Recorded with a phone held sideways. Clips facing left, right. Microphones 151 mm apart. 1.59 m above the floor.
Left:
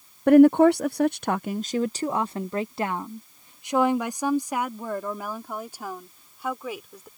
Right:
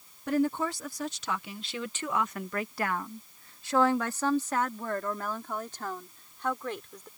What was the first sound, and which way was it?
A woman speaking, 65° left (ahead or behind).